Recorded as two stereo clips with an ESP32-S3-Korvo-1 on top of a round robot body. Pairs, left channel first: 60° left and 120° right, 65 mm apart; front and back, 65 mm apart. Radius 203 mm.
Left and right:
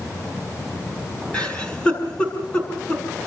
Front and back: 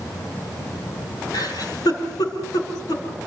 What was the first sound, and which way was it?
A giggle, 15° right.